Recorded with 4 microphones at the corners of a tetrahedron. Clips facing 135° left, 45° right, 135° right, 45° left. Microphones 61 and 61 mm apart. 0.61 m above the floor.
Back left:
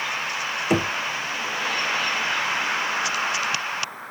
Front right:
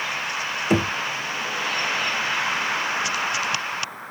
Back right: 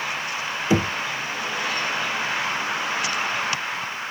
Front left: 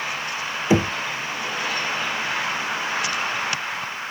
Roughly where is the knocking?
Ahead left.